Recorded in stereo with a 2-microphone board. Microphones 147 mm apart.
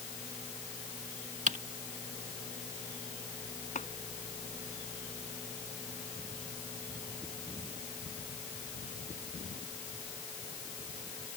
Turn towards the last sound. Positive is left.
turn(degrees=50)  # may be behind; listen again after turning